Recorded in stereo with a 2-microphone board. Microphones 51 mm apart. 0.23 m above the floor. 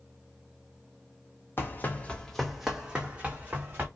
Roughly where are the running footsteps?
Left.